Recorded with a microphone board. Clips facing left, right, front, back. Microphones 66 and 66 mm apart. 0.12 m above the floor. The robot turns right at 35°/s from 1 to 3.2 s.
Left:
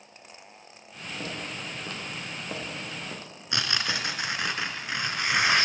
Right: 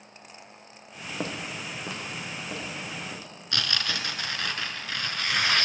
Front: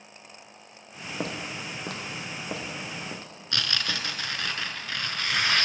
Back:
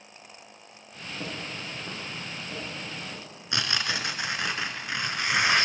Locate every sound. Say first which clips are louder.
1.2 s footsteps: right 3 dB, front 3 dB; 35° right, 1.6 m; by 4.0 s 45° left, 3.5 m
3.5 s tearing paper: left 1 dB, back 1 dB; 135° left, 0.6 m